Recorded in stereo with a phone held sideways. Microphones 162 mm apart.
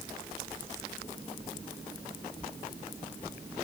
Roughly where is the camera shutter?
I don't hear a camera shutter.